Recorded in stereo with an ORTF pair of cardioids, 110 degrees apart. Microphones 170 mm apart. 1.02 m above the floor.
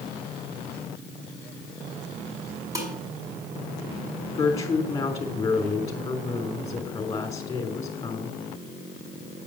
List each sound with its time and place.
2.8 s dishes clattering: 20° right, 5 m
4.3 s a woman speaking: 20° left, 3.5 m